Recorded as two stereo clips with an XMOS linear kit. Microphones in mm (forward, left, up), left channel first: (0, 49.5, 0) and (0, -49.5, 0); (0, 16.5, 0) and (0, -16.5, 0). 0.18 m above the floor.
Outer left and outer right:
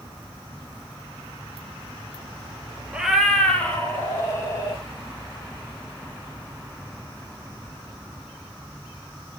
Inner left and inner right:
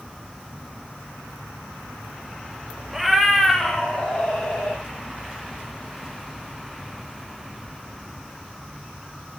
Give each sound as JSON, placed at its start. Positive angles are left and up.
{"t": 2.9, "sound": "a cat meowing", "side_deg": -10, "distance_m": 1.8}